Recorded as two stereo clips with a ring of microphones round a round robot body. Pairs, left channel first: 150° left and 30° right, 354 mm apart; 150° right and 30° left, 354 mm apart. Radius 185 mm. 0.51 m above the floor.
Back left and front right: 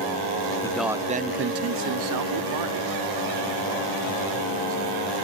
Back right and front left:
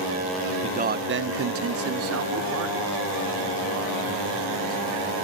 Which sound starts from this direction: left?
A man speaking, at 0.6 s.